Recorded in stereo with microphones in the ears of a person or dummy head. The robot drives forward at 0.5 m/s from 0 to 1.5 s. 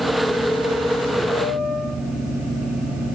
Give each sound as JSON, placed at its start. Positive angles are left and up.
{"t": 1.3, "sound": "a piano", "side_deg": 5, "distance_m": 1.8}